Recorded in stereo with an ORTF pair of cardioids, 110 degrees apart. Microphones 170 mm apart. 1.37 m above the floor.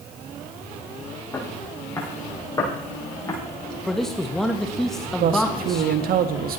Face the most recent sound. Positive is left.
turn(degrees=-60)